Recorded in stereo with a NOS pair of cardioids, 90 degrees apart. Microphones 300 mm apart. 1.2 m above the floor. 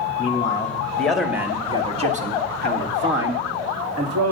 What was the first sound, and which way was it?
A man speaking, 20° left.